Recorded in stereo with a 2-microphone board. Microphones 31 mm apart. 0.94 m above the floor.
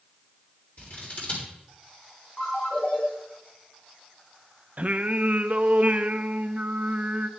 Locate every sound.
0.8 s scissors: 55° left (ahead or behind), 3.5 m
2.4 s a ringtone: 50° left (ahead or behind), 5.5 m
4.8 s singing: 45° right (ahead or behind), 0.6 m